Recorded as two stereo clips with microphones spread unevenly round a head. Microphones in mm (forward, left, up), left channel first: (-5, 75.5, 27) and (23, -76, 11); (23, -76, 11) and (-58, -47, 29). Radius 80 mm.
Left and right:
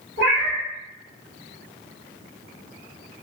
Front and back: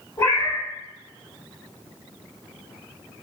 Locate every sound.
0.2 s a cat meowing: 75° right, 1.9 m